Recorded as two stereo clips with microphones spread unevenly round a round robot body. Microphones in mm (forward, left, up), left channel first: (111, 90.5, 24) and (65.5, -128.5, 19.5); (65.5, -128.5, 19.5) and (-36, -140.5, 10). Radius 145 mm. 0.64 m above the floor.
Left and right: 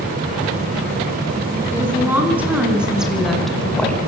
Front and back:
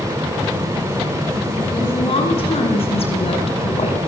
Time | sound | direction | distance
1.7 | a woman speaking | 20° right | 8 m